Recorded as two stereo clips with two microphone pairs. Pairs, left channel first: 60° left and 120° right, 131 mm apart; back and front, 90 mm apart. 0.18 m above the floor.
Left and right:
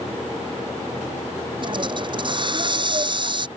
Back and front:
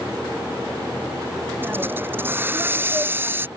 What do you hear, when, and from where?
1.6 s a hiss: 70° right